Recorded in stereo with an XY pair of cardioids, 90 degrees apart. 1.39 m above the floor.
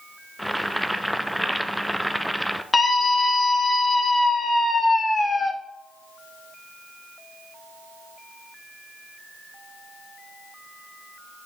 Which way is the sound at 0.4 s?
Straight ahead.